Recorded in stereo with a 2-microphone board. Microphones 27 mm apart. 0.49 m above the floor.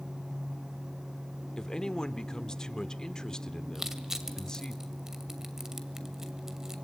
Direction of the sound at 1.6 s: 25° left (ahead or behind).